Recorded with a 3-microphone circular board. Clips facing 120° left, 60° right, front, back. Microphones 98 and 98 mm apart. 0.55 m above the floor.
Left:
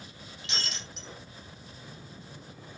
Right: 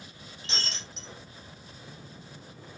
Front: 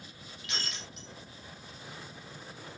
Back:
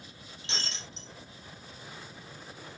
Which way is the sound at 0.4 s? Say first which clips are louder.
Right 1 dB, back 1 dB; 115° right.